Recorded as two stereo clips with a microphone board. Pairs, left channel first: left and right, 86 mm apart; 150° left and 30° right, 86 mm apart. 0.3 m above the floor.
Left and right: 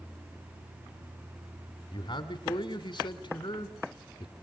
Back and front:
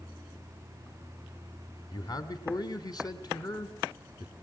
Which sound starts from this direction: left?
A man speaking, at 1.9 s.